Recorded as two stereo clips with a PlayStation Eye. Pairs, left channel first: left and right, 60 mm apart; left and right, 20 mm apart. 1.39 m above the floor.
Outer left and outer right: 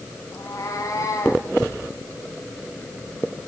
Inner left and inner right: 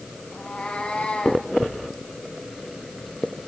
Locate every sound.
0.3 s a cat meowing: 70° left (ahead or behind), 5 m